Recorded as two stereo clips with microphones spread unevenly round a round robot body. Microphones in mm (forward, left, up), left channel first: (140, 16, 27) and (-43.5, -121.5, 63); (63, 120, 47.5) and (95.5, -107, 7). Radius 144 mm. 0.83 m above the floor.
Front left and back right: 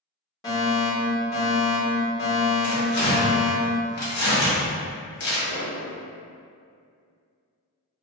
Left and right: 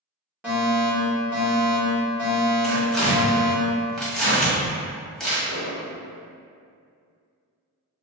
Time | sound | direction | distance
0.4 | a fire alarm | 15° right | 1.7 m
2.6 | tearing paper | 5° left | 1.4 m
5.5 | an explosion | 135° right | 0.8 m